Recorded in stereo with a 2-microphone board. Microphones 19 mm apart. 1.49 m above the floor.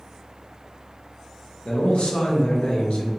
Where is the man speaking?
80° left, 0.8 m.